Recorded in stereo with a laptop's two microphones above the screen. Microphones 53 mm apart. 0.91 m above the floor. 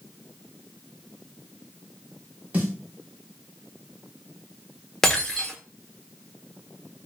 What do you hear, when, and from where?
2.5 s a snare drum: 35° right (ahead or behind), 1.4 m
5.0 s breaking glass: 10° left (ahead or behind), 0.6 m